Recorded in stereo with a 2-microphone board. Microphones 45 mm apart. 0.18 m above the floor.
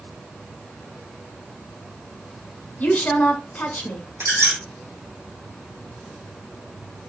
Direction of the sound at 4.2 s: 70° right (ahead or behind).